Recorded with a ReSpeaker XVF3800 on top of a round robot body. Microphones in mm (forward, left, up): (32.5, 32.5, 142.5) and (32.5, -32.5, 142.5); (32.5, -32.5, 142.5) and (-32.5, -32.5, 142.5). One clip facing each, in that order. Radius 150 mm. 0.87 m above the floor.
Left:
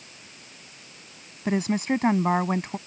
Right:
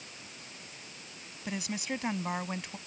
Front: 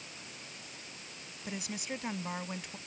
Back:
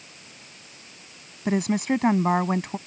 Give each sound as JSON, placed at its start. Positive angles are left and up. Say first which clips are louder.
{"t": 1.4, "sound": "a woman speaking", "louder": "left 12 dB, back 17 dB", "azimuth_deg": 140}